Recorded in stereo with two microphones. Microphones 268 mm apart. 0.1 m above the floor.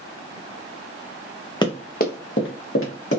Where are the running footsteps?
15° left (ahead or behind), 0.6 m; by 3.2 s 55° left (ahead or behind), 1.6 m.